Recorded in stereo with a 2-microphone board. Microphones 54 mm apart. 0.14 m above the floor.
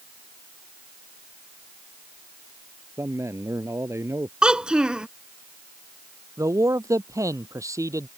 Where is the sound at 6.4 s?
75° right (ahead or behind).